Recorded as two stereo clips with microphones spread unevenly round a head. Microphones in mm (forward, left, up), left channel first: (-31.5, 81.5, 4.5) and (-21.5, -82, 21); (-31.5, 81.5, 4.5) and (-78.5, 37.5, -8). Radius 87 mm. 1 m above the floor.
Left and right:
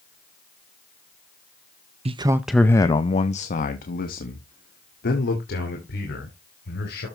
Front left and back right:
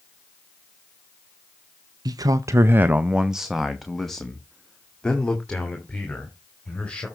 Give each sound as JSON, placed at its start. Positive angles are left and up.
{"t": 2.0, "sound": "a man speaking", "azimuth_deg": -140, "distance_m": 0.6}